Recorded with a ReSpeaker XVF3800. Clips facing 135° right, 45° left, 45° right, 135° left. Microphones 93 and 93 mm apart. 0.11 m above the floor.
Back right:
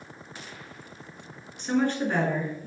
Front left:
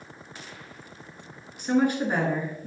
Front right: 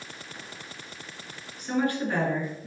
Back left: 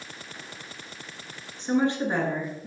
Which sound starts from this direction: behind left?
A woman speaking, at 1.6 s.